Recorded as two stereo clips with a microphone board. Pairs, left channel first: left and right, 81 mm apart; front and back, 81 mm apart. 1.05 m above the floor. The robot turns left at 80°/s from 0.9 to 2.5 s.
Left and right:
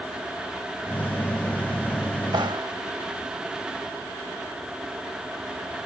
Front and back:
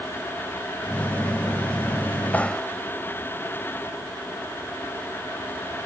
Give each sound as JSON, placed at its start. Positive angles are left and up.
{"t": 2.3, "sound": "a clap", "azimuth_deg": -70}